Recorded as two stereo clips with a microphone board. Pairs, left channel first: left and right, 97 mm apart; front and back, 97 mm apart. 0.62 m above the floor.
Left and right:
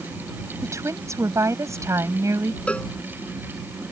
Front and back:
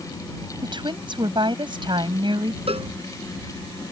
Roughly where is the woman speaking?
Behind right.